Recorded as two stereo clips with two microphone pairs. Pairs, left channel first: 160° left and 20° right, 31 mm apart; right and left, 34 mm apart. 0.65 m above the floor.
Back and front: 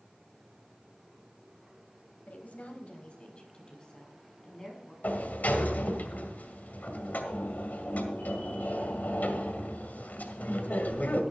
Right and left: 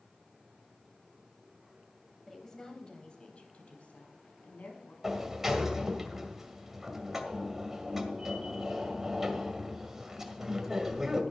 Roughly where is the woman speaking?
Behind.